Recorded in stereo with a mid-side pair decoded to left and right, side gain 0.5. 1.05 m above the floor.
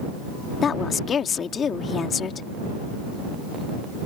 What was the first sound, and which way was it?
A woman speaking, 45° left.